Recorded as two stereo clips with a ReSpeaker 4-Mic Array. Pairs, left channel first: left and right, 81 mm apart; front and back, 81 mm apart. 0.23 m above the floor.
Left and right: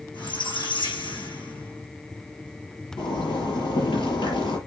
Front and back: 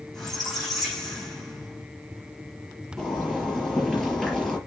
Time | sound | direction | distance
0.1 | a squeak | 85° left | 7 m
3.0 | a zipper | 85° left | 5.5 m